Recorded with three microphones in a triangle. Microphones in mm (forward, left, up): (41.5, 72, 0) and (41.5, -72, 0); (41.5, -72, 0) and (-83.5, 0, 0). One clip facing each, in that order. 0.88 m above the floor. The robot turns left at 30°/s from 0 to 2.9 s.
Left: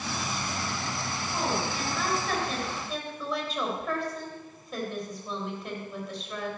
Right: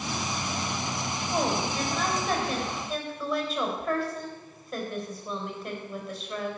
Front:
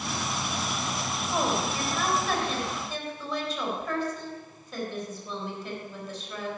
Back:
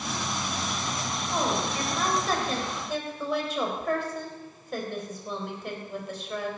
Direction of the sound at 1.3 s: 130° right.